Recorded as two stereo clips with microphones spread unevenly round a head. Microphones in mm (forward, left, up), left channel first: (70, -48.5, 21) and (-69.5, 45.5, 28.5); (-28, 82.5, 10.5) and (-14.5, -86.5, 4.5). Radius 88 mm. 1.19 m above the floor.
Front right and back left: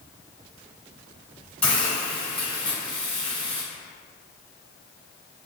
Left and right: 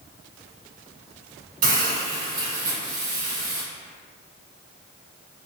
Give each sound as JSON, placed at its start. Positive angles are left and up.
{"t": 1.6, "sound": "a hiss", "azimuth_deg": -120, "distance_m": 1.4}